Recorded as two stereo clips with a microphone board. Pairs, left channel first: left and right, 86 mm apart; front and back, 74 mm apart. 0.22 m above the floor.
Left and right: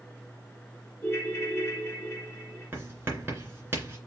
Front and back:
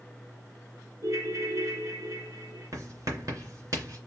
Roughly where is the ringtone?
Behind left.